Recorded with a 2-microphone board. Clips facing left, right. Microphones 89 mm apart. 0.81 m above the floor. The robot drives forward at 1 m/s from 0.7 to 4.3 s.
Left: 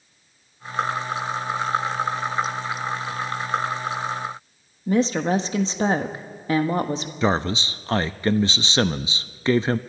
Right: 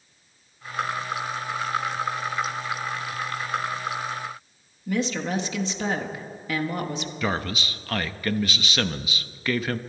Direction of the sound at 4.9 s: 35° left (ahead or behind).